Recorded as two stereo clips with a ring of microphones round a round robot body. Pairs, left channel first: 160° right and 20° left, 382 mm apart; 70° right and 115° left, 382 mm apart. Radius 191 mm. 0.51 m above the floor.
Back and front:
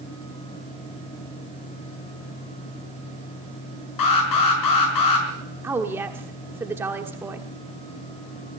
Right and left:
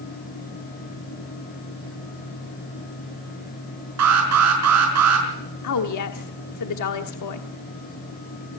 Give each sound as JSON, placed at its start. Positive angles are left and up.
{"t": 4.0, "sound": "an alarm", "azimuth_deg": 165, "distance_m": 5.5}
{"t": 5.6, "sound": "a woman speaking", "azimuth_deg": -60, "distance_m": 1.2}